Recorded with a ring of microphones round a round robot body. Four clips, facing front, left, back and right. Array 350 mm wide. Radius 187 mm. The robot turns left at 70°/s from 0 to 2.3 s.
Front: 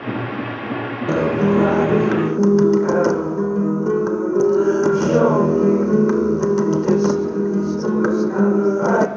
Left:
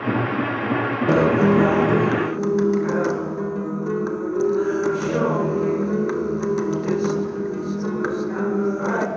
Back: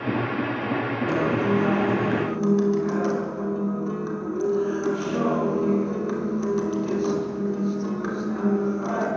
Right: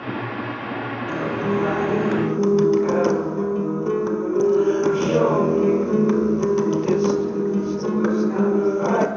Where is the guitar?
65° left, 1.1 m; by 9.1 s 20° right, 1.1 m.